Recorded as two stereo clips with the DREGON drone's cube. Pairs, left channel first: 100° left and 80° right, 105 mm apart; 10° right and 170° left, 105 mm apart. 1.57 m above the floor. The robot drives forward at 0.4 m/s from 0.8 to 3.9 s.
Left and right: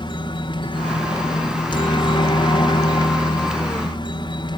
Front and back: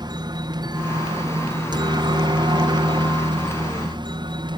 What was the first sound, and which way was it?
A helicopter, 130° left.